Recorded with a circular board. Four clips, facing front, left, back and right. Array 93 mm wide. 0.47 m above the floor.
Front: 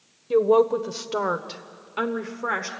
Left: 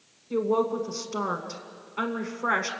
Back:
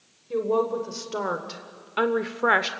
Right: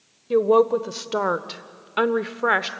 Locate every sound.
0.3 s a woman speaking: 60° right, 1.4 m; by 2.7 s 140° right, 1.0 m